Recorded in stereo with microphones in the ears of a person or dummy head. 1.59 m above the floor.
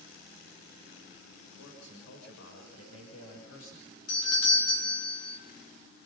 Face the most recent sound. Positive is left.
turn(degrees=80)